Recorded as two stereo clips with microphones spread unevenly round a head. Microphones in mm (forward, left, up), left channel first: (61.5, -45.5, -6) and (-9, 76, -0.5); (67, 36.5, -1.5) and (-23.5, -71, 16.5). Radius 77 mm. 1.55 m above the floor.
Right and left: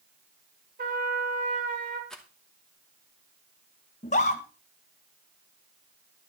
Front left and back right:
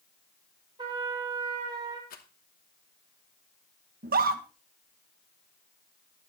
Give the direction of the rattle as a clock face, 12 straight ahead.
11 o'clock.